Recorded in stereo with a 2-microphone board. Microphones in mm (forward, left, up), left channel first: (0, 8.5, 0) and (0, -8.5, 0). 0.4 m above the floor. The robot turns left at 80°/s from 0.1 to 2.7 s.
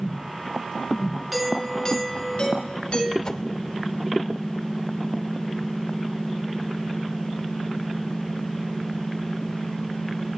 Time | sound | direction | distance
1.3 | a doorbell | 175° right | 5.5 m
3.2 | a whoosh | 35° left (ahead or behind) | 0.6 m